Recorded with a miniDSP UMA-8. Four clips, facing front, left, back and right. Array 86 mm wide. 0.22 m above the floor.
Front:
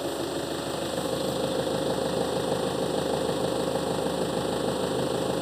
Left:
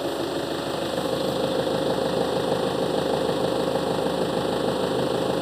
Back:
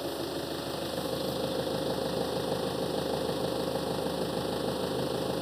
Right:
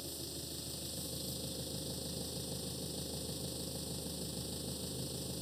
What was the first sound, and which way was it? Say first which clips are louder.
An engine running: left 22 dB, front 4 dB; 80° left.